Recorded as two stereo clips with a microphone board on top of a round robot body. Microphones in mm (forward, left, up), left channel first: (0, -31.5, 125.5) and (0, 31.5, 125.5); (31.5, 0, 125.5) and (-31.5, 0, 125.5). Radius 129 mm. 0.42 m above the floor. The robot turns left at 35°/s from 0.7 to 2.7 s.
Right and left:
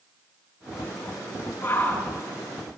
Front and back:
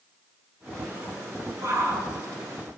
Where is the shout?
140° right, 8 m; by 2.1 s 155° right, 8 m.